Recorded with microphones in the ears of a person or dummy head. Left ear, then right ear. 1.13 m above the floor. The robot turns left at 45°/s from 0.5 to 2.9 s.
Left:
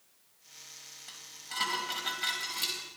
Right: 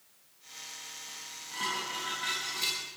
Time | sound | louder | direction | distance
1.1 | dishes clattering | even | 85° left | 4 m